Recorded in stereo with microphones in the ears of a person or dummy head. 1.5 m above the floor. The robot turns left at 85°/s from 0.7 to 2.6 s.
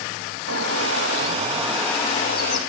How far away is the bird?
About 2.5 m.